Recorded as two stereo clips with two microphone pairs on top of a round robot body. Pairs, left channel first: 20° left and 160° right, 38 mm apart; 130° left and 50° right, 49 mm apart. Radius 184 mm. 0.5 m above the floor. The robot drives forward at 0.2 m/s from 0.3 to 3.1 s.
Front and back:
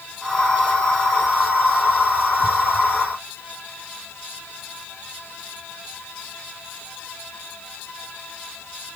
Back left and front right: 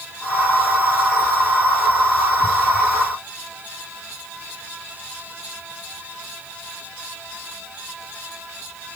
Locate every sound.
Only background noise.